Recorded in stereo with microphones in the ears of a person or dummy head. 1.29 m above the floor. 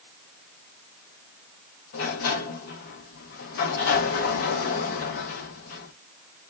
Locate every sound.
1.9 s a sliding door: 50° left (ahead or behind), 0.6 m